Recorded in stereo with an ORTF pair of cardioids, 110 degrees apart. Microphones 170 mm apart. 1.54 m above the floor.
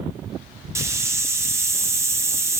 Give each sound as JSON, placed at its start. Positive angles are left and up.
{"t": 0.8, "sound": "a hiss", "azimuth_deg": -15, "distance_m": 0.6}